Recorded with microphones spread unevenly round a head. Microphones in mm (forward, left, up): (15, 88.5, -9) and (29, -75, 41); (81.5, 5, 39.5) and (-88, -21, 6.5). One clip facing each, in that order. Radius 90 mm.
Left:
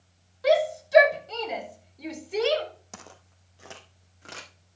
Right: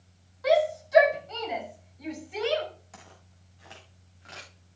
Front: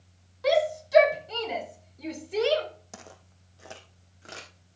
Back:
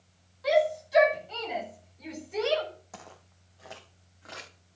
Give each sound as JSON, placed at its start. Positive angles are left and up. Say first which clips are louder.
{"t": 0.4, "sound": "a shout", "louder": "left 1 dB, even", "azimuth_deg": 40, "distance_m": 5.5}
{"t": 2.9, "sound": "footsteps", "louder": "left 4 dB, even", "azimuth_deg": 60, "distance_m": 2.5}